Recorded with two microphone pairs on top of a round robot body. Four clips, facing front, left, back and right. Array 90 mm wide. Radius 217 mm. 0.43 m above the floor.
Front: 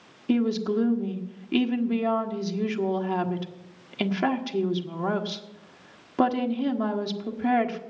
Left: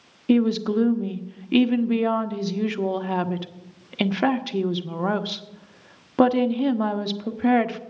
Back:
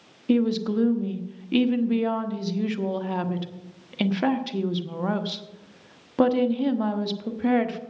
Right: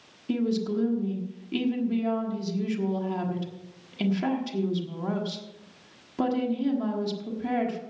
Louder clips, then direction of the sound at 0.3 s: Left 7 dB, back 2 dB; 85° left.